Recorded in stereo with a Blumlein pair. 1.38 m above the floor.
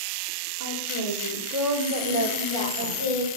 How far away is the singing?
About 6.5 m.